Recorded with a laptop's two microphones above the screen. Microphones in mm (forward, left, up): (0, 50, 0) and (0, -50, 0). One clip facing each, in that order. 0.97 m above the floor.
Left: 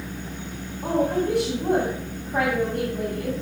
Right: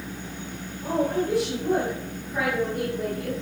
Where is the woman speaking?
70° left (ahead or behind), 6 m.